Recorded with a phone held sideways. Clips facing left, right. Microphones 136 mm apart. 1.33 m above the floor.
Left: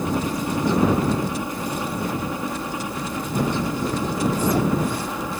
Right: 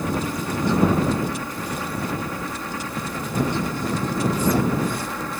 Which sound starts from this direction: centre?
A helicopter, at 0.0 s.